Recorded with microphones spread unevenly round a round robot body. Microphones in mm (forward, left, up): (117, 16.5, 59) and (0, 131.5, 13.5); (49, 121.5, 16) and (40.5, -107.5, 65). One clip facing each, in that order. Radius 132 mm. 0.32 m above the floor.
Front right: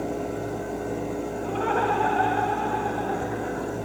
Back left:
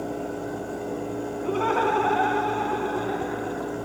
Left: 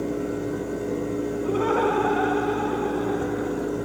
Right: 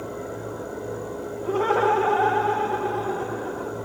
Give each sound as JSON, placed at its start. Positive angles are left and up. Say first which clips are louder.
{"t": 1.4, "sound": "laughter", "louder": "back left 2 dB, right 2 dB", "azimuth_deg": 175, "distance_m": 3.5}